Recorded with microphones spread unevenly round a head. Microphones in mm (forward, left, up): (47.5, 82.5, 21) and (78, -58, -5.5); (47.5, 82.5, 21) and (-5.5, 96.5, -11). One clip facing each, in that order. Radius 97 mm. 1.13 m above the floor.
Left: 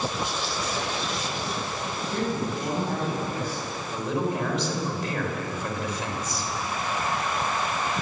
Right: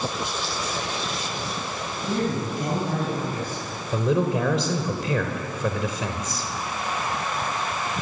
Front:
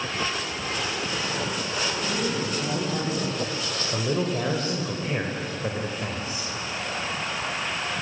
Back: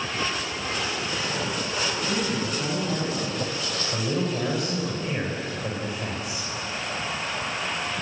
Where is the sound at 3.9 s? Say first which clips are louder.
Right 5 dB, front 1 dB; 95° right, 4.5 m.